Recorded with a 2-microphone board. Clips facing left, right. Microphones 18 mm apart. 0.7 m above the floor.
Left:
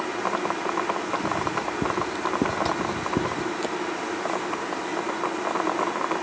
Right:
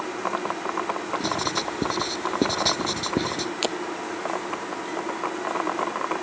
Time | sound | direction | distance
1.2 | writing | 75° right (ahead or behind) | ?
3.6 | breaking glass | 50° right (ahead or behind) | ?